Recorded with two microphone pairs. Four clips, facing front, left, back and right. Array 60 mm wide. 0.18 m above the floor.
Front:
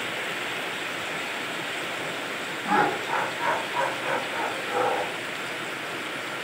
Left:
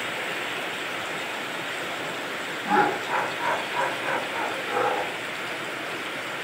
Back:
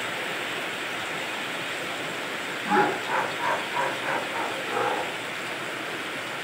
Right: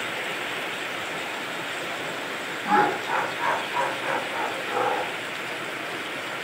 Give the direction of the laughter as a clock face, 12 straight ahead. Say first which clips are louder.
Right 1 dB, even; 3 o'clock.